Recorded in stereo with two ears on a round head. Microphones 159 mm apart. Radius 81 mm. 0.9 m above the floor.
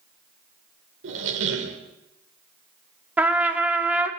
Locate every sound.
1.0 s a squeak: 75° right (ahead or behind), 1.4 m
3.2 s a trumpet: 10° right (ahead or behind), 1.2 m